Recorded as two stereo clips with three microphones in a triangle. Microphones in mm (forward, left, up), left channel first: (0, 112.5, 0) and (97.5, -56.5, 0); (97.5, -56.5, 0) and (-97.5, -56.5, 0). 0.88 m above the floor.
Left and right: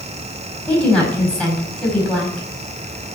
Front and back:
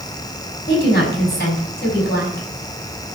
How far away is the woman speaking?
About 5.5 m.